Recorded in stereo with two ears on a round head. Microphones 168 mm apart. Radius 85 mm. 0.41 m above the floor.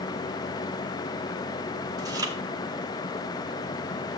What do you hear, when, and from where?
2.0 s chewing: 20° right (ahead or behind), 1.5 m